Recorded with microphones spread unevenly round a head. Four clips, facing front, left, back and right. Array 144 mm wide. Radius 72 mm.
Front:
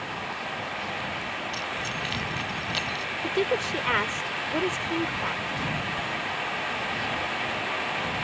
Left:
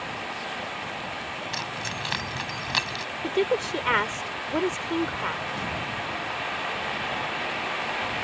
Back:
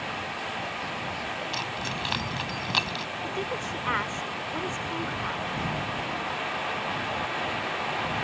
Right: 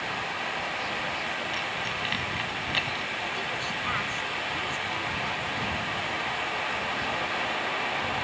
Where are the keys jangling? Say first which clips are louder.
Right 1 dB, even; 140° left.